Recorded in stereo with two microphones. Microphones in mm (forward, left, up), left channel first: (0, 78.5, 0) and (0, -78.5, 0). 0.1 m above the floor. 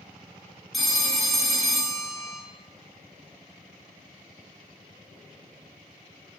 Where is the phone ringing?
Centre (ahead or behind), 0.7 m.